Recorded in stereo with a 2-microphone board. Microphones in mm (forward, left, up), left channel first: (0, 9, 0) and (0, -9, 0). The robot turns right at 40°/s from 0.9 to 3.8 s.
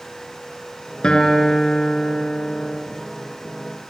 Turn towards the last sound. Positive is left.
turn(degrees=160)